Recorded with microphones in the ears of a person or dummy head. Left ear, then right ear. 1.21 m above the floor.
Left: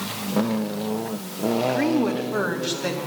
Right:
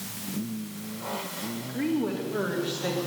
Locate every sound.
1.7 s a woman speaking: 45° left (ahead or behind), 1.9 m; by 3.0 s 25° left (ahead or behind), 3 m